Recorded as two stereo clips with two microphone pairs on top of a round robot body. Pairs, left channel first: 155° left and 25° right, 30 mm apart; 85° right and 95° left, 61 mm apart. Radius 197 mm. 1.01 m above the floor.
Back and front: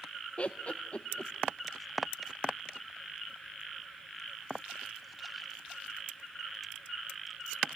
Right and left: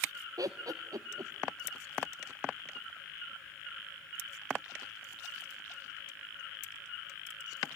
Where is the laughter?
105° left, 0.8 m.